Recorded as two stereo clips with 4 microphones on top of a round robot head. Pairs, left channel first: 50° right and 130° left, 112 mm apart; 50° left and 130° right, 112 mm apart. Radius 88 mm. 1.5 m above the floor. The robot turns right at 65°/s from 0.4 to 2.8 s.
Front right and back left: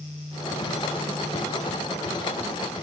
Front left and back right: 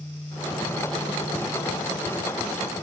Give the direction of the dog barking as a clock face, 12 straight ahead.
No dog barking in this recording.